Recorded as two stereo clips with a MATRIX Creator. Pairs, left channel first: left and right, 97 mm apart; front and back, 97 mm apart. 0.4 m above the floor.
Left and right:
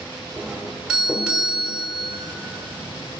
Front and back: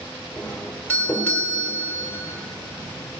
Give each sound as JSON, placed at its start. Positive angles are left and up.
{"t": 0.4, "sound": "a doorbell", "azimuth_deg": -20, "distance_m": 1.3}